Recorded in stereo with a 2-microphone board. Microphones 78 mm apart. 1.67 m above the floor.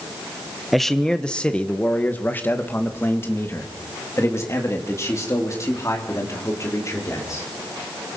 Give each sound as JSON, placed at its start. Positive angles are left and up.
{"t": 0.7, "sound": "a man speaking", "side_deg": 0, "distance_m": 1.2}